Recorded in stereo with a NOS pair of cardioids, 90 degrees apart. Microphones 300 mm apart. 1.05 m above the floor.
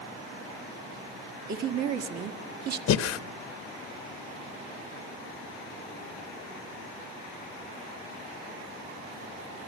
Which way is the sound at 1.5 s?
65° right.